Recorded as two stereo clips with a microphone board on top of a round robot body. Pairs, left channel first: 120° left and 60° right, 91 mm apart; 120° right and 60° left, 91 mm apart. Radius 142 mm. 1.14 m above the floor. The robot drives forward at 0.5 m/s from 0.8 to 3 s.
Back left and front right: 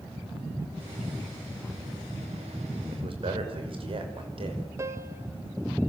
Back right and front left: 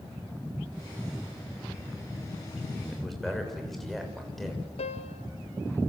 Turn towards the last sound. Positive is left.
turn(degrees=-125)